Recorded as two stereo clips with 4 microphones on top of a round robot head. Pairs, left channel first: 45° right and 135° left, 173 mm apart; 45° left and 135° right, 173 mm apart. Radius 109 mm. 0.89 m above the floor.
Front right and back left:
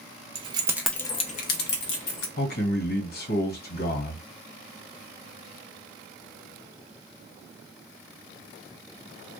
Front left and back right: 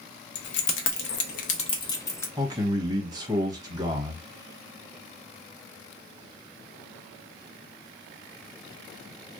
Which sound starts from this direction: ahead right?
A man speaking, at 2.4 s.